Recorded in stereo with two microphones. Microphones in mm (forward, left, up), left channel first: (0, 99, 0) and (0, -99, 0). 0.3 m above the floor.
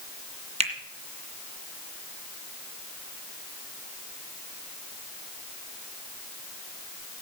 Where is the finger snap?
35° right (ahead or behind), 1.7 m.